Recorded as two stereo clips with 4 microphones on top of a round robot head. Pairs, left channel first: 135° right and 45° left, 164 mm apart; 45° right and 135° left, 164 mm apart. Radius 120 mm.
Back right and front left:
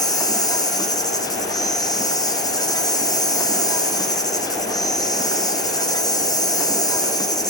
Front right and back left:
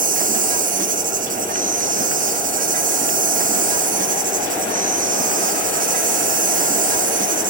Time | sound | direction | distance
0.0 | an insect | 160° left | 1.6 m